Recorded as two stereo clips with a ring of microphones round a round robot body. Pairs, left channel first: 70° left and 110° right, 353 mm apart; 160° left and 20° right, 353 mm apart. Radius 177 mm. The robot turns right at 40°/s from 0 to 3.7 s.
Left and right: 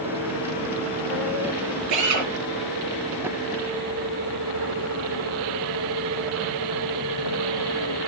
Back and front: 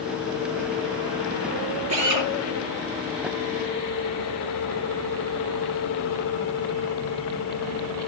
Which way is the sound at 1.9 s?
75° right.